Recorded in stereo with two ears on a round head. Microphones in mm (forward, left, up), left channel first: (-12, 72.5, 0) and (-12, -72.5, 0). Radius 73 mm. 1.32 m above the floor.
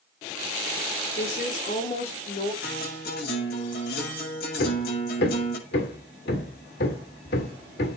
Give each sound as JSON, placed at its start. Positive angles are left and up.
{"t": 1.2, "sound": "a woman speaking", "side_deg": 45, "distance_m": 4.5}
{"t": 2.6, "sound": "a guitar", "side_deg": 60, "distance_m": 8.0}
{"t": 4.6, "sound": "hammering", "side_deg": 65, "distance_m": 1.8}